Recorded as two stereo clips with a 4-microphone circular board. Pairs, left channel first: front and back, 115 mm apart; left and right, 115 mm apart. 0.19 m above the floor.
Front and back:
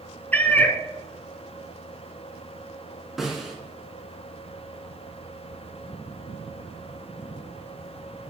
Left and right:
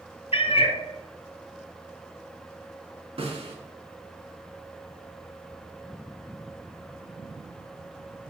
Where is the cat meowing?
75° left, 0.6 m.